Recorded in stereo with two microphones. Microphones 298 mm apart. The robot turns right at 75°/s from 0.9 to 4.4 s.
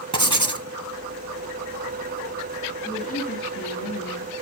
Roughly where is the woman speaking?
Ahead.